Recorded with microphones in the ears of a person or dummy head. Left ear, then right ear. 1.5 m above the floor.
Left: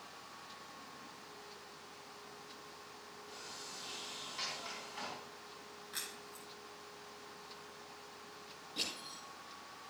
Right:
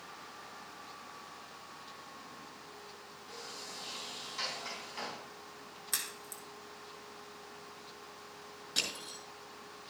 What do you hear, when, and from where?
3.3 s a sliding door: 5° right (ahead or behind), 3.5 m
5.9 s a crack: 75° right (ahead or behind), 4 m
8.8 s crushing: 60° right (ahead or behind), 6 m